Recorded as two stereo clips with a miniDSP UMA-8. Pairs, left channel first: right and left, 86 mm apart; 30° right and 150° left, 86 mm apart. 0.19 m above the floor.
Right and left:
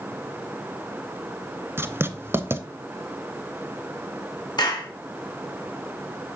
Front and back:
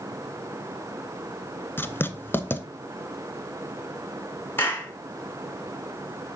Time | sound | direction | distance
1.8 | writing | 30° left | 0.8 m
4.6 | a clap | 90° right | 2 m